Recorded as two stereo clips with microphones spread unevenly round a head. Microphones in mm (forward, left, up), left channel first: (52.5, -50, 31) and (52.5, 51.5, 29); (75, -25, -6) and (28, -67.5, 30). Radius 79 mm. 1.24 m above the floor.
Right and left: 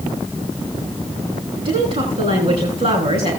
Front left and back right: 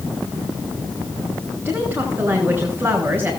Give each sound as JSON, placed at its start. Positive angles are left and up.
{"t": 1.6, "sound": "a woman speaking", "azimuth_deg": 140, "distance_m": 3.0}